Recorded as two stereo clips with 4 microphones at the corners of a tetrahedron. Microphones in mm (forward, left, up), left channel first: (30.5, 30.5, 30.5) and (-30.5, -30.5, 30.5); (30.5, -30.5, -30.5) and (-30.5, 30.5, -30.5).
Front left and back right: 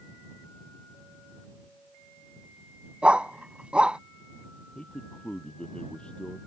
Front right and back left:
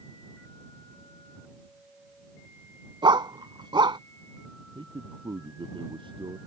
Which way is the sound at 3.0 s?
145° left.